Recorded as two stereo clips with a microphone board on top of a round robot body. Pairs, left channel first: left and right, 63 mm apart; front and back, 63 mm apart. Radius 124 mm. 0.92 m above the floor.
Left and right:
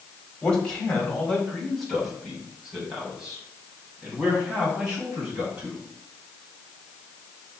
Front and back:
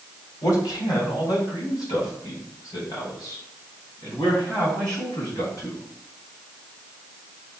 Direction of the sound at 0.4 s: 15° left.